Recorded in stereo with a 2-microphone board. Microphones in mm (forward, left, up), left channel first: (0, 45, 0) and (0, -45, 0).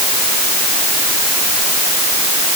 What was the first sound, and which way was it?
Only background noise.